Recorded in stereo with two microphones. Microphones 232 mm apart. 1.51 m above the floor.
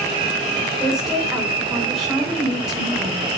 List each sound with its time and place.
0.8 s a woman speaking: centre (ahead or behind), 6.5 m